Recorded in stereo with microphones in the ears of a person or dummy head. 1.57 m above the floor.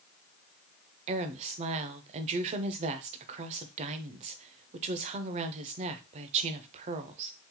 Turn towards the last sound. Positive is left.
turn(degrees=-35)  # may be behind; listen again after turning